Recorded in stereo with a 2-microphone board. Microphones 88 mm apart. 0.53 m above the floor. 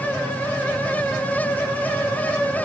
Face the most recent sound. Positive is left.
No sound to turn to.